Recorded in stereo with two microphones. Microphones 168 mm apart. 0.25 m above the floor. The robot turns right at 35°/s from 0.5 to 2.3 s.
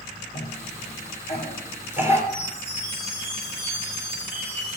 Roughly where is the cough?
Left.